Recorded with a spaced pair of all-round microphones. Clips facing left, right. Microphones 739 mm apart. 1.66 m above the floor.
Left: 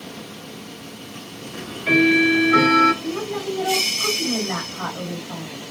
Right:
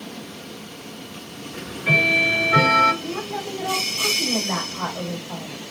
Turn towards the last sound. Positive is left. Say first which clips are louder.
# left 4 dB
turn(degrees=-10)  # may be behind; listen again after turning